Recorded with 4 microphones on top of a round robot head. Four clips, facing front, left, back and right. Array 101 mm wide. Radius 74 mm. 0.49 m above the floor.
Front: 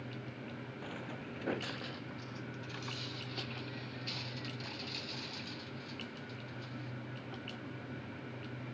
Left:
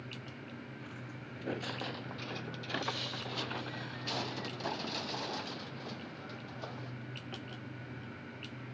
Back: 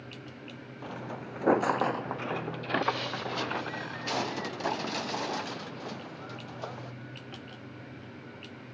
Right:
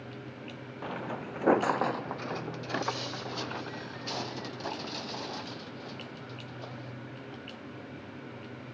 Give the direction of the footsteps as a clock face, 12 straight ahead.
4 o'clock.